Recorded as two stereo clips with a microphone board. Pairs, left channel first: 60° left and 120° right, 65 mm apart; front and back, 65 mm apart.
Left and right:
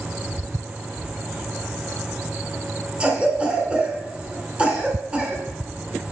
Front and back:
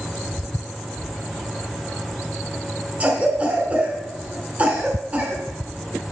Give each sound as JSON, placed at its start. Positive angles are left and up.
{"t": 3.0, "sound": "a cough", "azimuth_deg": -160, "distance_m": 1.2}